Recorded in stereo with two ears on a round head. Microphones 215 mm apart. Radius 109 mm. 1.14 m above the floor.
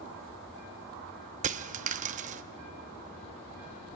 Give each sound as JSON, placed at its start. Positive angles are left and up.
{"t": 1.4, "sound": "a dropped coin", "side_deg": -35, "distance_m": 0.7}